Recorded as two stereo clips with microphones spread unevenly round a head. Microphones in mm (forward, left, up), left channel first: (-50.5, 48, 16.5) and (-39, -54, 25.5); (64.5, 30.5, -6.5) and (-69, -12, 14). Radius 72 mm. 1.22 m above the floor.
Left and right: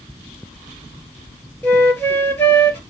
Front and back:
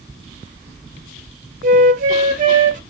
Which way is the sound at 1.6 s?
170° left.